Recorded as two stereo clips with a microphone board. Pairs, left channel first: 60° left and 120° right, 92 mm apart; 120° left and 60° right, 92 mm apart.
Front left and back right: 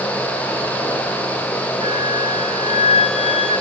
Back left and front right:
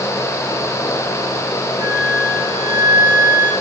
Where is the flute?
115° right, 3.5 m.